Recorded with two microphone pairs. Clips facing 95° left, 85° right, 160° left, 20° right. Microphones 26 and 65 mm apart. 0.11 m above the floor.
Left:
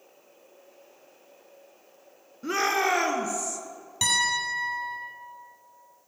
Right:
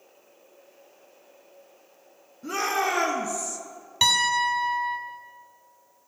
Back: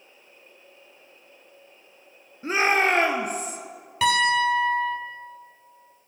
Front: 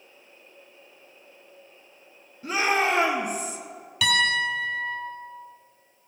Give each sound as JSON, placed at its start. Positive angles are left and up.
{"t": 2.4, "sound": "a shout", "azimuth_deg": 130, "distance_m": 1.4}
{"t": 4.0, "sound": "a piano", "azimuth_deg": -150, "distance_m": 2.5}